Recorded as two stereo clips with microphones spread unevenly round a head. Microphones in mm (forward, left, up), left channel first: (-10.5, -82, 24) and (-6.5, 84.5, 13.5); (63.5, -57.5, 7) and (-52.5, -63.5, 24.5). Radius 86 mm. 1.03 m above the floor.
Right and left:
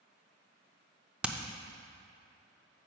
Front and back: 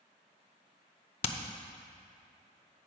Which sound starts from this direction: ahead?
Hammering, at 1.2 s.